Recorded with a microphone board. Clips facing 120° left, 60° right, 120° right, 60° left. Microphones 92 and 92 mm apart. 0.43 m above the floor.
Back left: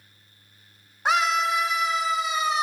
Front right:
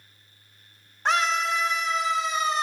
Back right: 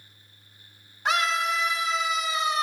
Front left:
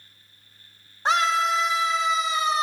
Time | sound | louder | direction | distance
1.1 | a scream | back left 2 dB, front left 4 dB | 45° left | 1.0 m